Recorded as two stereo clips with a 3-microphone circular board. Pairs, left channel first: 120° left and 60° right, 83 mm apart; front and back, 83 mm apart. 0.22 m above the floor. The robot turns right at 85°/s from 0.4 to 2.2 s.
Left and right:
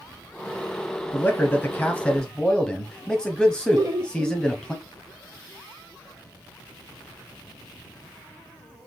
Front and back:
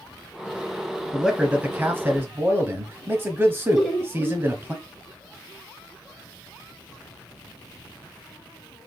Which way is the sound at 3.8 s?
90° right.